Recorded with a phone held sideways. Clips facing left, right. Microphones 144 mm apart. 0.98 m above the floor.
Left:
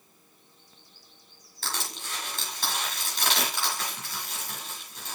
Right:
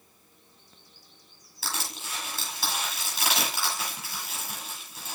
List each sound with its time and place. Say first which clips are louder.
1.6 s crushing: even; 5° right (ahead or behind), 6 m